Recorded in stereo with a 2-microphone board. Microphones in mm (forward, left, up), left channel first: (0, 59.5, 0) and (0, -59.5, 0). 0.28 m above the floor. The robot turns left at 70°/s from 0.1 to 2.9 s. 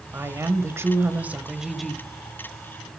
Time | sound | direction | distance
0.1 | a woman speaking | 20° right (ahead or behind) | 0.9 m